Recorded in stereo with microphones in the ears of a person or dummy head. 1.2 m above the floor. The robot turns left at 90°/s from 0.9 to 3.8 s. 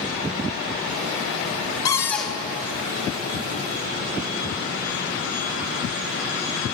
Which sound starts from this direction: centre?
A cupboard door, at 1.9 s.